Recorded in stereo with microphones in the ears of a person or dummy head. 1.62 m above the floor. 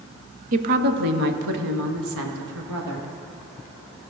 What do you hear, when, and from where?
0.5 s a woman speaking: 45° right (ahead or behind), 0.6 m; by 3.1 s 85° right, 1.9 m